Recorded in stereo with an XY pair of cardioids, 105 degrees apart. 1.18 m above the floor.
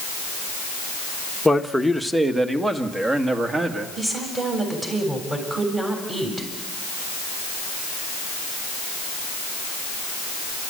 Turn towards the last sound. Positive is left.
turn(degrees=-20)